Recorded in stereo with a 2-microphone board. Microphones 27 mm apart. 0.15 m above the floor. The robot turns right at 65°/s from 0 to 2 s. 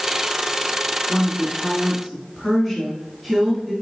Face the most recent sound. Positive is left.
turn(degrees=180)